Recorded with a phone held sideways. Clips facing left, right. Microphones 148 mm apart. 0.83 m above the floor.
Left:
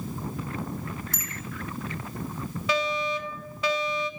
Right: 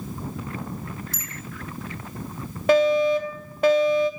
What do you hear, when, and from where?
1.1 s a bicycle bell: 55° left (ahead or behind), 5 m
2.7 s a fire alarm: 55° right (ahead or behind), 2.5 m